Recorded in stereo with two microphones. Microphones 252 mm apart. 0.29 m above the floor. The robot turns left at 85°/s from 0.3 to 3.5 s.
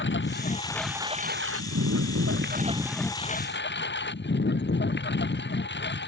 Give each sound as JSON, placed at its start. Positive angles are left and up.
{"t": 0.0, "sound": "a lawn mower", "azimuth_deg": 45}